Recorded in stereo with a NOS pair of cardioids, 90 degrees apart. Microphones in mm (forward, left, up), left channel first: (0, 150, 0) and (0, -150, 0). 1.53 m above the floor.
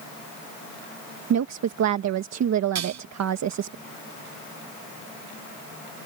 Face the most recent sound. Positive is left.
turn(degrees=-65)